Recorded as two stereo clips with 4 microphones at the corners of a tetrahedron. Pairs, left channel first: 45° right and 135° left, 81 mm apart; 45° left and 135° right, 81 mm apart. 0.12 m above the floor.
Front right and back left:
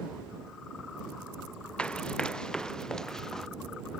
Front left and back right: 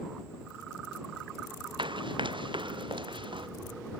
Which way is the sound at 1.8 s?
125° right.